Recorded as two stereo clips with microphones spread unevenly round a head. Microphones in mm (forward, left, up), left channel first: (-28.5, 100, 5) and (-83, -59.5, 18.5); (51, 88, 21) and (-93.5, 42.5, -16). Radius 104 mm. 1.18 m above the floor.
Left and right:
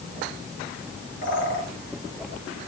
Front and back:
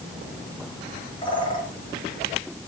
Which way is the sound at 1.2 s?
75° left.